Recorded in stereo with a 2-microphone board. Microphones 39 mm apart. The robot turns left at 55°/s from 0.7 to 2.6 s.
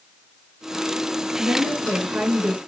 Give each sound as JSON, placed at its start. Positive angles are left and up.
{"t": 1.4, "sound": "a woman speaking", "azimuth_deg": -75, "distance_m": 8.0}